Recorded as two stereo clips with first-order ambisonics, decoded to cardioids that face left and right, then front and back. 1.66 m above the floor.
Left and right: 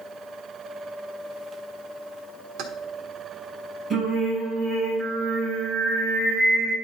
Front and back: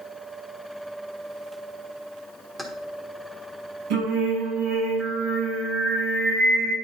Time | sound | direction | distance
2.6 | keys jangling | 100° right | 1.3 m
3.9 | singing | 170° right | 5 m